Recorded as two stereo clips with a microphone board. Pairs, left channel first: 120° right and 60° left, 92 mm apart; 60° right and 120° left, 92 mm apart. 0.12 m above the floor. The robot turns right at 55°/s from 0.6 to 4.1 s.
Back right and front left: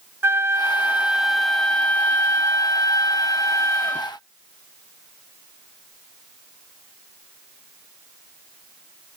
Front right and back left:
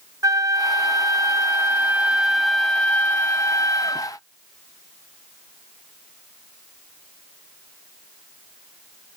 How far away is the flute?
About 0.5 m.